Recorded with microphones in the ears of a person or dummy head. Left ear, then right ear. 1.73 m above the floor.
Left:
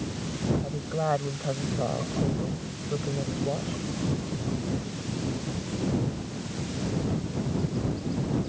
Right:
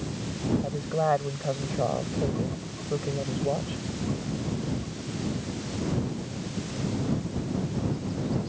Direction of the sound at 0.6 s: 20° right (ahead or behind).